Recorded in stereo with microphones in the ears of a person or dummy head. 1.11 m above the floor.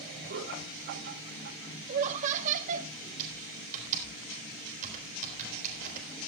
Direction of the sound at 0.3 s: 65° right (ahead or behind).